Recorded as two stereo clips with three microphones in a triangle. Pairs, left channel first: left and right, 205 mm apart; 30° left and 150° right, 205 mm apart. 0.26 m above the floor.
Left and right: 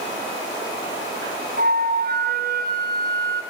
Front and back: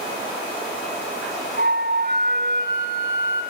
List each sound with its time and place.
1.6 s a flute: 120° right, 3 m